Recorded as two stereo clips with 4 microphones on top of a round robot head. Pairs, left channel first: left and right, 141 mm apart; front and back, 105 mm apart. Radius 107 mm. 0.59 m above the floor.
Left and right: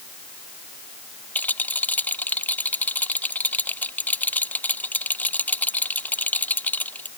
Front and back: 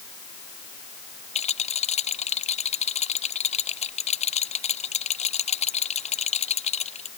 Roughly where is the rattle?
Ahead.